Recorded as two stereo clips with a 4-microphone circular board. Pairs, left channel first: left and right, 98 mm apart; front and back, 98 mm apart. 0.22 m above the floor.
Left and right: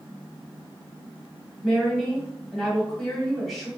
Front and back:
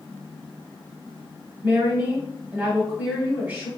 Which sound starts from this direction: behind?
A woman speaking, at 1.6 s.